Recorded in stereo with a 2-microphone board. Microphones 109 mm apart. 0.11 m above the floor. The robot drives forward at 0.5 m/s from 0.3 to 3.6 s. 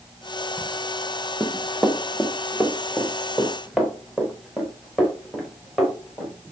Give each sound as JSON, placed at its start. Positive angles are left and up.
{"t": 1.4, "sound": "running footsteps", "side_deg": 0, "distance_m": 1.4}